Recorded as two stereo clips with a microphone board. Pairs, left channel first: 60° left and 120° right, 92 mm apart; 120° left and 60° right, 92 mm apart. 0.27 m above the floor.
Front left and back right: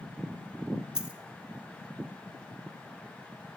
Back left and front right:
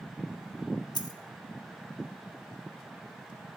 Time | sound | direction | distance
0.9 | a dropped coin | 160° left | 1.0 m